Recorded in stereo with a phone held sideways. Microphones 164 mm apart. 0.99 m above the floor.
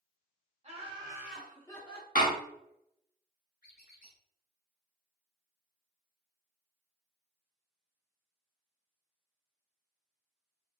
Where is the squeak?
65° left (ahead or behind), 1.5 m.